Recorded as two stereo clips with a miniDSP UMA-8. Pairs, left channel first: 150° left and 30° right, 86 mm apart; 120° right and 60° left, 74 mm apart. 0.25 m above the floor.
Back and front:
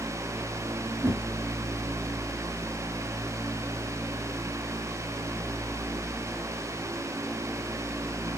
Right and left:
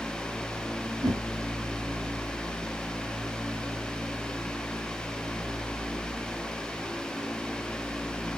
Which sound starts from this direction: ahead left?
A whoosh, at 1.0 s.